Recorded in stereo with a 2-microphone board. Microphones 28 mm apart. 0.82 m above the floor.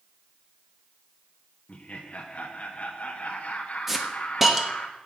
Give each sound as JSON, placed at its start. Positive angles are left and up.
{"t": 1.7, "sound": "laughter", "side_deg": 45, "distance_m": 1.1}
{"t": 3.9, "sound": "a hiss", "side_deg": -10, "distance_m": 1.2}